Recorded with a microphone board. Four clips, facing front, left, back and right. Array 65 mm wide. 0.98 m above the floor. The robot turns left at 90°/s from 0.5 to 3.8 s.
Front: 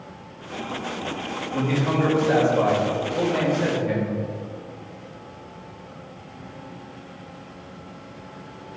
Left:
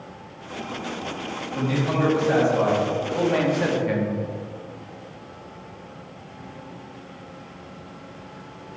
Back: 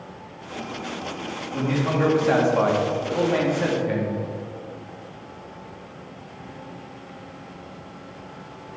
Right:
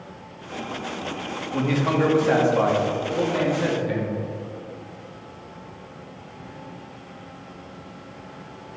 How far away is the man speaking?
About 2.5 m.